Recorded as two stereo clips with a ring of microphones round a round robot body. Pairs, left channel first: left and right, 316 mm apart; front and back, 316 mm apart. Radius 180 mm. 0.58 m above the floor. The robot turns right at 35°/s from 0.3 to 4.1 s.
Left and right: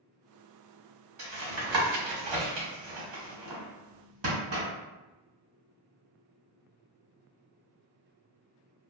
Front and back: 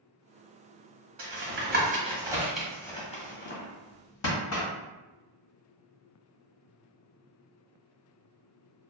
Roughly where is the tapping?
Behind right.